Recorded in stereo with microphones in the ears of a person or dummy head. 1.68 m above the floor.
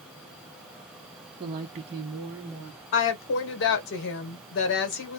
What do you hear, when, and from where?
1.4 s a woman speaking: 25° right (ahead or behind), 0.5 m; by 2.8 s 15° right (ahead or behind), 1.5 m
2.9 s a woman speaking: 65° left (ahead or behind), 1.1 m